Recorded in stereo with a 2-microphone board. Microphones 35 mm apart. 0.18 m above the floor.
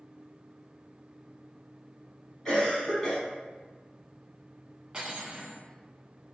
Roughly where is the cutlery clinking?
Right.